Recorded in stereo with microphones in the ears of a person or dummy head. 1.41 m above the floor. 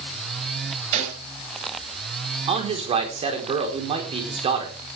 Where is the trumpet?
I don't hear a trumpet.